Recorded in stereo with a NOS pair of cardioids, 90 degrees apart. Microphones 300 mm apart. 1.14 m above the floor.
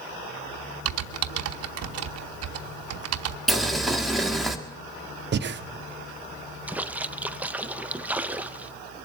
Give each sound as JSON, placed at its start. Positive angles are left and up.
{"t": 0.8, "sound": "typing on a keyboard", "azimuth_deg": -55, "distance_m": 0.9}
{"t": 3.5, "sound": "boiling", "azimuth_deg": 0, "distance_m": 1.5}
{"t": 5.3, "sound": "breathing", "azimuth_deg": -35, "distance_m": 0.8}
{"t": 6.7, "sound": "a splash", "azimuth_deg": -5, "distance_m": 0.5}